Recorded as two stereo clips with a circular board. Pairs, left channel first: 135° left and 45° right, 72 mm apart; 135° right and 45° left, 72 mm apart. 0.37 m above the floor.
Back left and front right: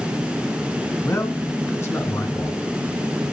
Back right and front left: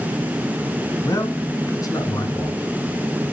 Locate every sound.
1.0 s a man speaking: 175° right, 3.5 m